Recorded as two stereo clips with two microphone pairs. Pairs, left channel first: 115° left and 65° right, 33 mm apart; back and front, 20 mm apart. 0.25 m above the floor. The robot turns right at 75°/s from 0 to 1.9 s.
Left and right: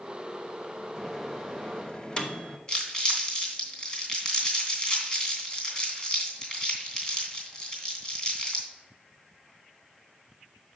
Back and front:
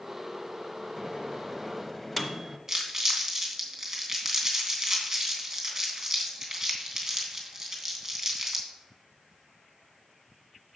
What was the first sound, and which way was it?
A microwave, 20° left.